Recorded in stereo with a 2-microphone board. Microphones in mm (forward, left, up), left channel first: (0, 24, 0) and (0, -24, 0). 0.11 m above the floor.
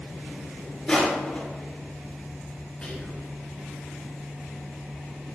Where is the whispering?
20° left (ahead or behind), 1.6 m.